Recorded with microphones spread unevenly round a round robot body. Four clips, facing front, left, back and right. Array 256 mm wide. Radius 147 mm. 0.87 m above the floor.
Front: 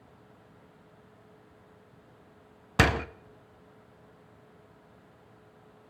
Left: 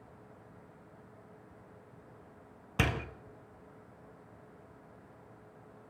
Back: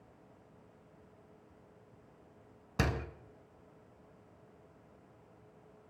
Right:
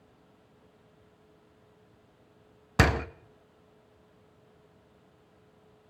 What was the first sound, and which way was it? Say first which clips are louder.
A door slam: right 8 dB, front 9 dB; 25° right.